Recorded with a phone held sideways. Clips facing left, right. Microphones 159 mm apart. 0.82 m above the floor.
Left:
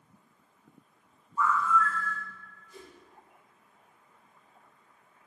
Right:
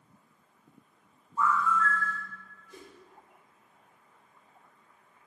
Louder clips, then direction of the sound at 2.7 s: Even; 75° right (ahead or behind).